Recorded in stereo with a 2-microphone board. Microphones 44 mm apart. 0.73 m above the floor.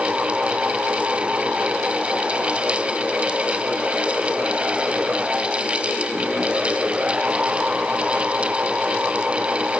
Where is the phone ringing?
I don't hear a phone ringing.